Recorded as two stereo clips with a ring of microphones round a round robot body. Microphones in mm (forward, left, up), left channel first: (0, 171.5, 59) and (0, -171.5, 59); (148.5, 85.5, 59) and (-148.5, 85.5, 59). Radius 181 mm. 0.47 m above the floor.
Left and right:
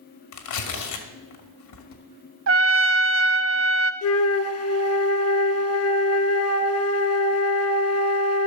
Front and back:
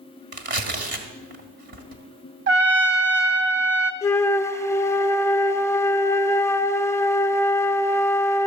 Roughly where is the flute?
Left.